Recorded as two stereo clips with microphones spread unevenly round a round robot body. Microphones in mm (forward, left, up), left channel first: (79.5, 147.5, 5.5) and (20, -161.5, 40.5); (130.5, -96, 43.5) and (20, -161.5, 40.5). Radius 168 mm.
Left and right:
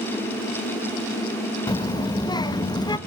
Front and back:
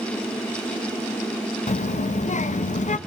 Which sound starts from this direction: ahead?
A child speaking, at 1.7 s.